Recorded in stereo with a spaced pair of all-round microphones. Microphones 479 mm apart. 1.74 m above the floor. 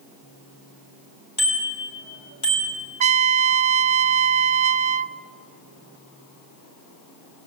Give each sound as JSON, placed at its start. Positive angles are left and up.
{"t": 1.4, "sound": "a bicycle bell", "side_deg": 80, "distance_m": 4.0}
{"t": 3.0, "sound": "a trumpet", "side_deg": -70, "distance_m": 0.5}